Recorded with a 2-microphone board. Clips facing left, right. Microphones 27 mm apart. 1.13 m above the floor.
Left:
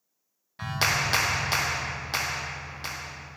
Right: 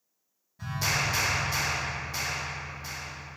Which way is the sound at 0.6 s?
80° left.